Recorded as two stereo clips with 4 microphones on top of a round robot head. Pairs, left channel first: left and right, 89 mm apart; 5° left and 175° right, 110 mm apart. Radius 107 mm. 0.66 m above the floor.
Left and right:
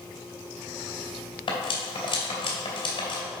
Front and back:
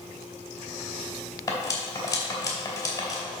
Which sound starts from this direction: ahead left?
Cutlery clinking, at 1.5 s.